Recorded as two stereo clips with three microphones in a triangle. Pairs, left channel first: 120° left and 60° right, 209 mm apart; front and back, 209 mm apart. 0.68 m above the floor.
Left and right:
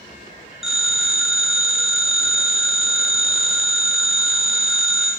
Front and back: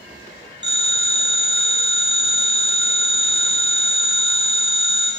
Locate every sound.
0.6 s a phone ringing: 30° left, 1.3 m